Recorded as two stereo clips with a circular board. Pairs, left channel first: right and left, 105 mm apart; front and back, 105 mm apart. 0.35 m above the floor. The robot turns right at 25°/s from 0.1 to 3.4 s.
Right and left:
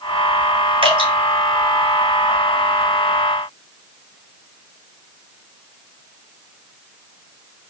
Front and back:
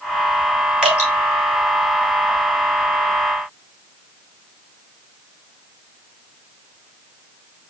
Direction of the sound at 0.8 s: 100° left.